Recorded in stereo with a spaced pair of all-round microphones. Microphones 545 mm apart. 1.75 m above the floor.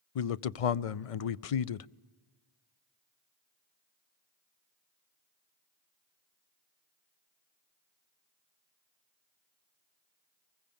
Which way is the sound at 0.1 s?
80° left.